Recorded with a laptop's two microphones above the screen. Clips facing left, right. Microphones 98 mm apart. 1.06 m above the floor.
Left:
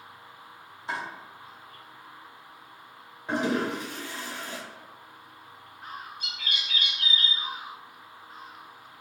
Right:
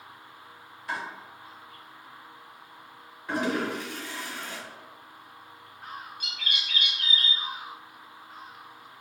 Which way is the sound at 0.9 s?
25° left (ahead or behind).